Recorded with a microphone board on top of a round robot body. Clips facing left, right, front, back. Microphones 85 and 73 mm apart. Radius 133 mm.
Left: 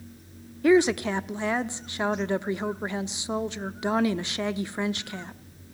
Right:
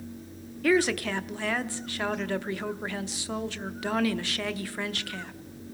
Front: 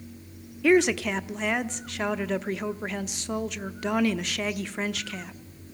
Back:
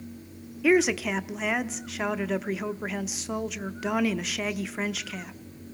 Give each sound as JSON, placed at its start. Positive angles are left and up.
{"t": 0.6, "sound": "a woman speaking", "azimuth_deg": 100, "distance_m": 0.9}